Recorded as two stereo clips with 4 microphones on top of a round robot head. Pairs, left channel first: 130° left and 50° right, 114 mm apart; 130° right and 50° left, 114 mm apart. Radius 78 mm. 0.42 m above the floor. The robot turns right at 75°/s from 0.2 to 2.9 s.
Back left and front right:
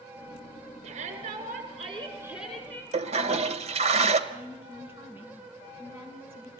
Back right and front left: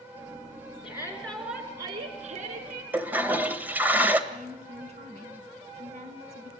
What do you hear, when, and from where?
0.8 s a shout: 85° right, 7 m; by 2.8 s 65° left, 7 m
2.9 s a toilet flushing: 25° right, 1.7 m
4.3 s a woman speaking: 20° left, 4.5 m